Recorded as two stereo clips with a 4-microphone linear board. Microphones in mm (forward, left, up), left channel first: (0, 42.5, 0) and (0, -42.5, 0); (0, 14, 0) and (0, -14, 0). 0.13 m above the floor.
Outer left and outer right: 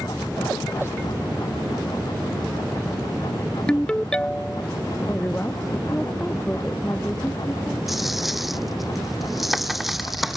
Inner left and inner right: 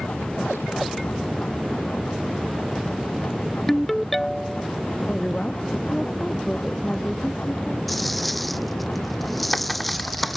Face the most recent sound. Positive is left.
turn(degrees=0)  # may be behind; listen again after turning